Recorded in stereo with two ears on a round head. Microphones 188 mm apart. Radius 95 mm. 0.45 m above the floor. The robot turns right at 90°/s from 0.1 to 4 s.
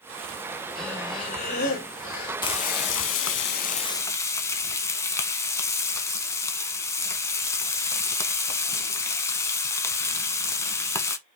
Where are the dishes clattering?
I don't hear dishes clattering.